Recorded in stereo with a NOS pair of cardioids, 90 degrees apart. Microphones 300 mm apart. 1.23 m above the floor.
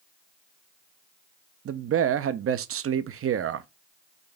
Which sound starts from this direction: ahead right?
A man speaking, at 1.6 s.